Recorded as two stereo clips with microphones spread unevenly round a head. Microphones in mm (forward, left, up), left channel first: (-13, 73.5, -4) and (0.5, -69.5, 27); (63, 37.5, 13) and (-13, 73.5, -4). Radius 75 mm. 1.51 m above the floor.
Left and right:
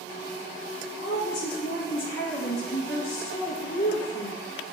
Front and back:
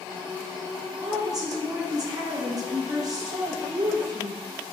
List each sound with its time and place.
1.0 s a woman speaking: 110° left, 1.3 m